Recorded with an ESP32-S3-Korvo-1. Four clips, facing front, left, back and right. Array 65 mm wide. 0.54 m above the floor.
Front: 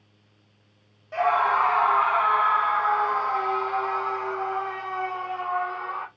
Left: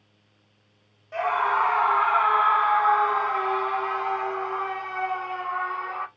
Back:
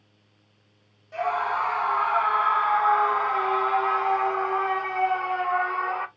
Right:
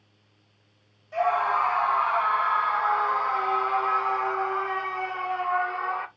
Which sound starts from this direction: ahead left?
A scream, at 1.1 s.